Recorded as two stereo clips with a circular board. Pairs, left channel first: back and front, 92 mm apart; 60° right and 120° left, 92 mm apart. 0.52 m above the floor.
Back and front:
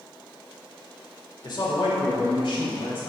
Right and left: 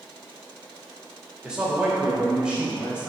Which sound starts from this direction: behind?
A man speaking, at 1.4 s.